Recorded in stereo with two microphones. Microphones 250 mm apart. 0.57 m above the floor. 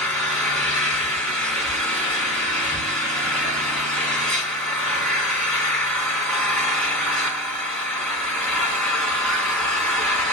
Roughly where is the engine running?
Centre.